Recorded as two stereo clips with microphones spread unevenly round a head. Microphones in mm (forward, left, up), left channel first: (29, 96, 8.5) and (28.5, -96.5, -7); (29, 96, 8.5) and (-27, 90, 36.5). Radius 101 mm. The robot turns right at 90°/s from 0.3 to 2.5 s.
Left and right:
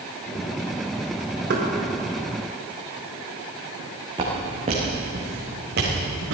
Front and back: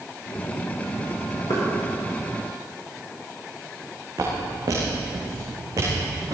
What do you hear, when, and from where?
1.5 s knocking: 60° right, 3.5 m; by 1.6 s 45° right, 3.5 m
4.2 s footsteps: 160° right, 4.5 m; by 6.3 s 125° right, 4.5 m